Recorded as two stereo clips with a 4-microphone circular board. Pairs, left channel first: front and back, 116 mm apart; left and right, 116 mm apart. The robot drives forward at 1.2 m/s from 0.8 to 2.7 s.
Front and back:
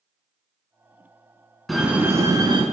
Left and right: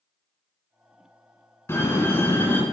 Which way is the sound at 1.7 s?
90° left.